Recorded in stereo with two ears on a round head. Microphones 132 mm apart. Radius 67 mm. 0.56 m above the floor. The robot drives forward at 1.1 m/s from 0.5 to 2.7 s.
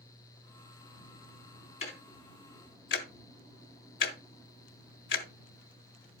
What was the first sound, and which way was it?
Ticking, 45° left (ahead or behind).